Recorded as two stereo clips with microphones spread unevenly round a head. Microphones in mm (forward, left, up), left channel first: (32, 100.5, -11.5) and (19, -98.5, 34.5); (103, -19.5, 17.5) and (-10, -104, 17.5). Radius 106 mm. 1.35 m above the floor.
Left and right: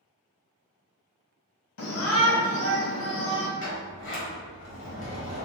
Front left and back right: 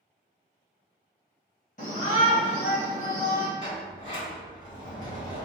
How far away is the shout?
About 1.0 m.